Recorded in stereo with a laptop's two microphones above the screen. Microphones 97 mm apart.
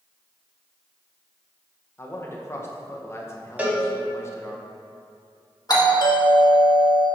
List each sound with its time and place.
2.0 s a man speaking: 25° left (ahead or behind), 0.8 m
3.6 s a cowbell: 15° right (ahead or behind), 1.3 m
5.7 s a doorbell: 45° left (ahead or behind), 1.7 m